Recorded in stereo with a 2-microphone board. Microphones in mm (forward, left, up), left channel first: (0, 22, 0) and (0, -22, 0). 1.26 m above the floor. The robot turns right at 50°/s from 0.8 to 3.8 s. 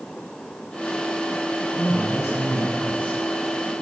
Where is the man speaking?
85° left, 7 m; by 3.8 s 175° right, 7 m.